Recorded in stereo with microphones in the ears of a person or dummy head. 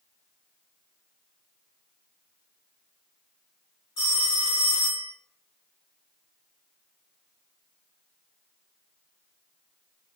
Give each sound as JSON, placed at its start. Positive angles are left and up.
{"t": 4.0, "sound": "a phone ringing", "side_deg": 20, "distance_m": 0.5}